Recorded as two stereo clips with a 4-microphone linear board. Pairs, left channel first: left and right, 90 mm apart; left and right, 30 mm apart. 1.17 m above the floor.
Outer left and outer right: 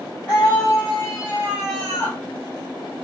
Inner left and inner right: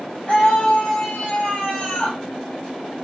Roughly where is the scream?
Left.